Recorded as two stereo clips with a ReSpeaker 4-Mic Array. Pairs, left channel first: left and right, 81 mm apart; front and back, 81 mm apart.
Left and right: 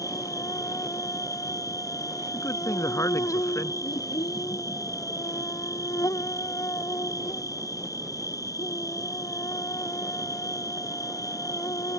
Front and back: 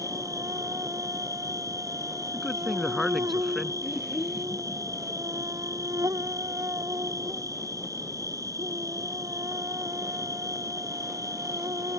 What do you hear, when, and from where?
0.0 s an insect: 135° left
2.3 s a man speaking: 85° left
3.8 s a child speaking: 95° left